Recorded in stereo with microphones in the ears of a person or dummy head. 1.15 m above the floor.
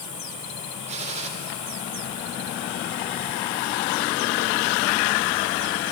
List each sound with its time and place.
0.9 s a gunshot: 35° right (ahead or behind), 3.5 m